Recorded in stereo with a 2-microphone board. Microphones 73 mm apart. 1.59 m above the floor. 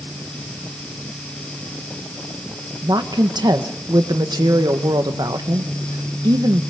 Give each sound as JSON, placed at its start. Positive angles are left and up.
{"t": 2.8, "sound": "a woman speaking", "side_deg": -70, "distance_m": 1.3}